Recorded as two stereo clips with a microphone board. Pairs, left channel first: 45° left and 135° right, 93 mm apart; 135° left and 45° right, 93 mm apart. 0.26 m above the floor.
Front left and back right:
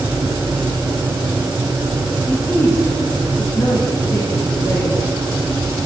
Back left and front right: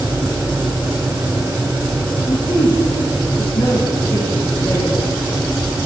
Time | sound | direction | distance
2.3 | a woman speaking | 105° left | 4 m